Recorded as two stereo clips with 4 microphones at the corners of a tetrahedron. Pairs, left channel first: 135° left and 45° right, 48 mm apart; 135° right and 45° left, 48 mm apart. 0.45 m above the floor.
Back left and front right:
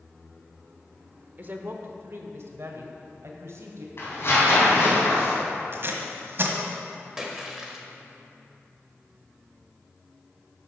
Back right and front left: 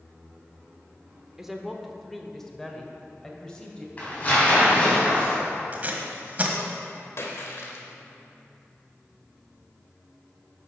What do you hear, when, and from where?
1.4 s a woman speaking: 35° right, 0.9 m; by 3.9 s 60° right, 2 m
4.0 s tearing paper: 165° left, 4 m
5.7 s tape being pulled: 10° right, 1.4 m
7.2 s a splash: 125° right, 1.5 m